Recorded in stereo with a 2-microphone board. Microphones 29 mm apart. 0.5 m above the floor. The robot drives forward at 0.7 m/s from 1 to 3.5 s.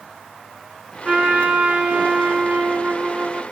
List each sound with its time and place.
1.1 s a trumpet: 55° right (ahead or behind), 2.5 m; by 3.4 s 85° right, 2.5 m